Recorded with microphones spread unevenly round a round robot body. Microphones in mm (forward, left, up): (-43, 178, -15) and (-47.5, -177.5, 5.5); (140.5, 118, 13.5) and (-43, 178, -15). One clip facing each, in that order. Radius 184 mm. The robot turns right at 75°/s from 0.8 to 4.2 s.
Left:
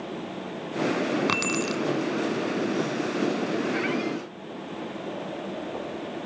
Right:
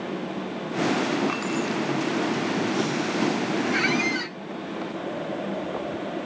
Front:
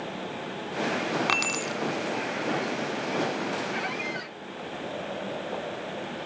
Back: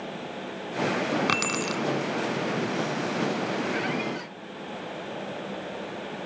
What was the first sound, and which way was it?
Keys jangling, 115° left.